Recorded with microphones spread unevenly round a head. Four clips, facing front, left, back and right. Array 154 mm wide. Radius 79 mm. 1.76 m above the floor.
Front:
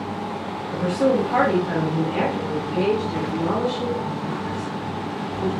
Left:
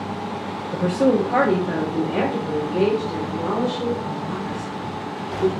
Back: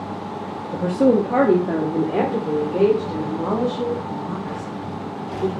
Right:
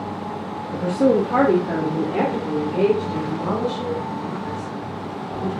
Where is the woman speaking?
155° left, 0.6 m; by 5.5 s straight behind, 3.5 m.